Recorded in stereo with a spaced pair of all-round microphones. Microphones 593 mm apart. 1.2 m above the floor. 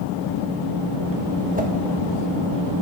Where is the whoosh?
15° right (ahead or behind), 1.5 m.